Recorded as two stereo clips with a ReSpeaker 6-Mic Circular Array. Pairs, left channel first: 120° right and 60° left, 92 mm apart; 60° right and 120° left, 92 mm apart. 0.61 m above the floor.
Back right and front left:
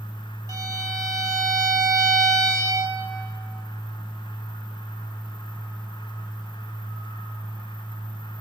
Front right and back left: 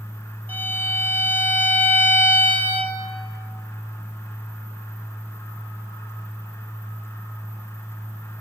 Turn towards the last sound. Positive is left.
turn(degrees=10)